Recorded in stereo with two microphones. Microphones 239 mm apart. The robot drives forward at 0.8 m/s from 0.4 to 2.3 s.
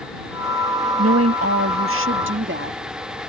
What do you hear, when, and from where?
1.0 s a woman speaking: 90° right; by 2.8 s 55° right (ahead or behind)